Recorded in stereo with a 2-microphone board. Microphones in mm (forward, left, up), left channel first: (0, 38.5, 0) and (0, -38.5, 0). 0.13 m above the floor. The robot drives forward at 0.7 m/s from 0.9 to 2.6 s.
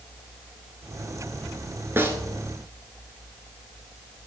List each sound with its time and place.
2.0 s a snare drum: 30° right (ahead or behind), 1.1 m; by 2.2 s 25° right (ahead or behind), 1.2 m